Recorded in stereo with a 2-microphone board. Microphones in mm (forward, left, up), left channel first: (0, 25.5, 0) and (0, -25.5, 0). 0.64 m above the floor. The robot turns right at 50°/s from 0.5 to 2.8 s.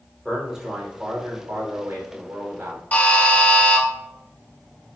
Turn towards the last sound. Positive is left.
turn(degrees=30)  # may be behind; listen again after turning